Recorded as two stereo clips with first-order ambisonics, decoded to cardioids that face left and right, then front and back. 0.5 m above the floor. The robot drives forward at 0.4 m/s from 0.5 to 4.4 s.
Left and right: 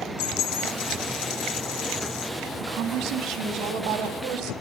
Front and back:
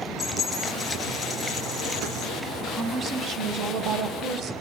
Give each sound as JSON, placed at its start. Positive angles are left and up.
{"t": 0.2, "sound": "a dropped coin", "azimuth_deg": 80, "distance_m": 3.5}
{"t": 2.6, "sound": "a woman speaking", "azimuth_deg": -125, "distance_m": 2.0}